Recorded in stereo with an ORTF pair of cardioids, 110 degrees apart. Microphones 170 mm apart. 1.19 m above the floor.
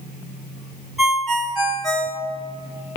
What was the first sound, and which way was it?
A ringtone, straight ahead.